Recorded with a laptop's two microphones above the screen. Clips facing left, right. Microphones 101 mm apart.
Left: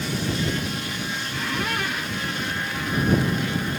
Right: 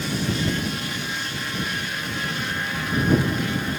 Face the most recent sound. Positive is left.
turn(degrees=80)